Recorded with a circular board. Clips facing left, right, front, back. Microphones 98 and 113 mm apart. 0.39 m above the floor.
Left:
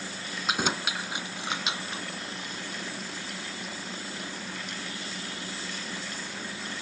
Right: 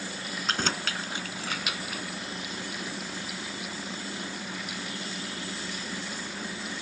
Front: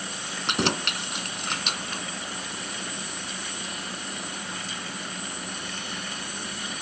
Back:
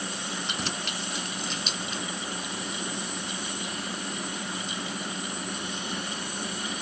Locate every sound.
0.5 s keys jangling: 10° left; by 2.0 s 30° left